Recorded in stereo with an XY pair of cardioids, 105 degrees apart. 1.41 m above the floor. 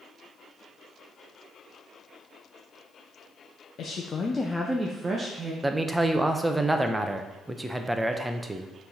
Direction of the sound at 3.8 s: 65° left.